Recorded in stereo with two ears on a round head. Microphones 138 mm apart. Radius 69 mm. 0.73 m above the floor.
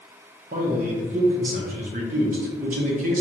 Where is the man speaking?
55° right (ahead or behind), 0.9 m.